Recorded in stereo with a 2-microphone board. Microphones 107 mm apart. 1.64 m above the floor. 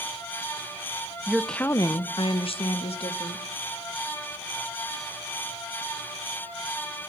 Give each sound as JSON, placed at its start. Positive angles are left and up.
{"t": 1.3, "sound": "a woman speaking", "side_deg": -15, "distance_m": 0.9}